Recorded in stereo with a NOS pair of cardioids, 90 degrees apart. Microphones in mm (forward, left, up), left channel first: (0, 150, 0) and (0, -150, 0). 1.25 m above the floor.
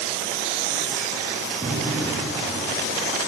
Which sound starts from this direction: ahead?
A gunshot, at 1.6 s.